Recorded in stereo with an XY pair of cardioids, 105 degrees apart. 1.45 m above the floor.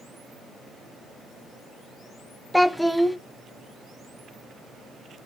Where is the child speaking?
5° left, 0.8 m.